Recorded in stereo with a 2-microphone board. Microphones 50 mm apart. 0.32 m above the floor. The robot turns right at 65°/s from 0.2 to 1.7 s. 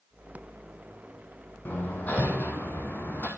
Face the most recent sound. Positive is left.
turn(degrees=35)  # may be behind; listen again after turning